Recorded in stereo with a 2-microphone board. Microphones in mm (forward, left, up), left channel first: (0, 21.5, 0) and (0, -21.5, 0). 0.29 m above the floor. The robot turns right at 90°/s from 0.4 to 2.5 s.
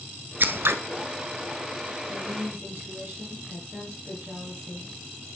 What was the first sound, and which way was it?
Scissors, 130° right.